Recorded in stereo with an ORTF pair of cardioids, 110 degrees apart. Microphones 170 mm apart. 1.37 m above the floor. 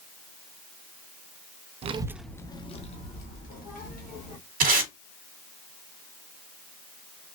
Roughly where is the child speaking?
Ahead right.